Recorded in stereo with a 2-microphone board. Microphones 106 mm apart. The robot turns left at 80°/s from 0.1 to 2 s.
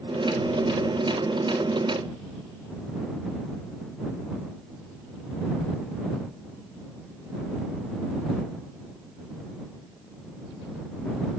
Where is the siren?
No siren in this recording.